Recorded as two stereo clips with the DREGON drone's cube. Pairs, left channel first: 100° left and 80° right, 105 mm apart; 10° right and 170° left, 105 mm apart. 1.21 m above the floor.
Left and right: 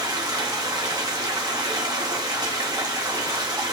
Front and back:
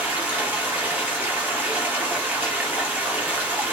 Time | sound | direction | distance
0.0 | running water | 120° right | 0.8 m